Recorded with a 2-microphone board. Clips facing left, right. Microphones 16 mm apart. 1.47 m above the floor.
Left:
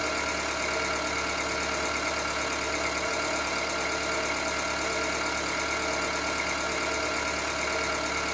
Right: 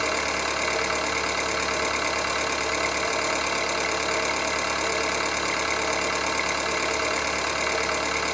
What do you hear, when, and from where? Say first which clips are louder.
0.0 s an engine running: right 4 dB; 80° right, 1.1 m